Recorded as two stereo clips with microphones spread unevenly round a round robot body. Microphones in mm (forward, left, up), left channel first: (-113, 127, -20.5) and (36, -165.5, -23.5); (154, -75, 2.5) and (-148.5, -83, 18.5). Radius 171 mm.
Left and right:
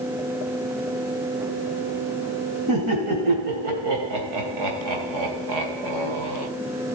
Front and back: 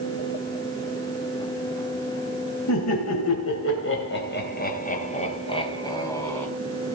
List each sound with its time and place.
2.7 s laughter: 20° right, 3.5 m; by 6.5 s 80° right, 4.5 m